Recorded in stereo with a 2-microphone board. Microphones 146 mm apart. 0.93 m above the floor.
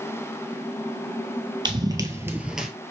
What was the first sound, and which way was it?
Running footsteps, 30° right (ahead or behind).